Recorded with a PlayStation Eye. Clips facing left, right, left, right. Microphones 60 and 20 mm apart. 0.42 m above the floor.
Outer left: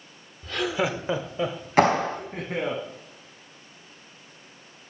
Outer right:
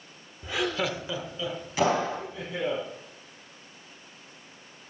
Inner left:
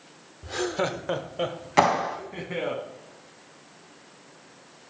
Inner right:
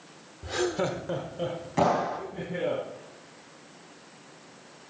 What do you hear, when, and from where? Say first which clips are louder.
0.4 s laughter: outer left 2 dB, inner left 1 dB; 20° right (ahead or behind), 0.8 m; by 2.8 s 65° left (ahead or behind), 3.5 m
1.8 s a clap: outer left 5 dB, inner left 3 dB; 60° left (ahead or behind), 3 m